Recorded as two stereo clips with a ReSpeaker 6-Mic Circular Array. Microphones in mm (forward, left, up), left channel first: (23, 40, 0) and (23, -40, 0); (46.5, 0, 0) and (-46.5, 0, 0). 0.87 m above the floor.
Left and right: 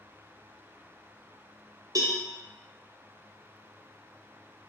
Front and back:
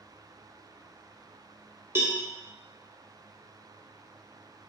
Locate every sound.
1.9 s a cowbell: 120° right, 0.5 m